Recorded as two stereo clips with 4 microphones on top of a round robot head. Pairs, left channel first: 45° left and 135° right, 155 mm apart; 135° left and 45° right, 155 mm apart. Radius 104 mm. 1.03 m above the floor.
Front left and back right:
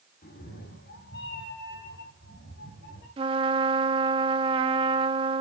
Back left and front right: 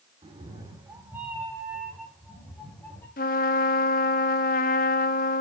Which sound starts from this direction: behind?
A trumpet, at 3.2 s.